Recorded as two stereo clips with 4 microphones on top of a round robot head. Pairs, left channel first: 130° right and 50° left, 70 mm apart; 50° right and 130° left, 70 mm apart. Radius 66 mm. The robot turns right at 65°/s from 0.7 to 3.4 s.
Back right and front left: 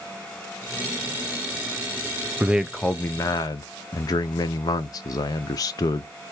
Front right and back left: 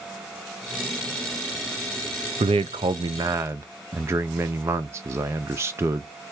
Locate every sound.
2.4 s a man speaking: 120° left, 0.5 m; by 6.1 s 175° right, 0.5 m